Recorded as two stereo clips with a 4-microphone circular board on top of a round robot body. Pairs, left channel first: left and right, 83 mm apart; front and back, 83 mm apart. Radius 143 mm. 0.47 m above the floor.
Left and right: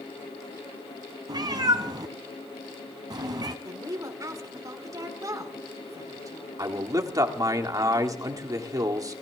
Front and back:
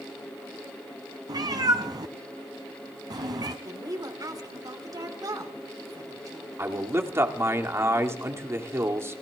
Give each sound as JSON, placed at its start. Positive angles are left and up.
{"t": 1.3, "sound": "a cat meowing", "azimuth_deg": -135, "distance_m": 0.6}
{"t": 3.6, "sound": "a woman speaking", "azimuth_deg": -135, "distance_m": 3.5}
{"t": 6.6, "sound": "a man speaking", "azimuth_deg": -125, "distance_m": 2.0}